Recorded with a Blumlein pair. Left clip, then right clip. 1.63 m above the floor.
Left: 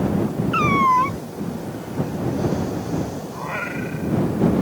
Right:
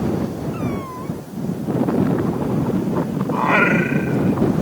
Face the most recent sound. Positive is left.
turn(degrees=-30)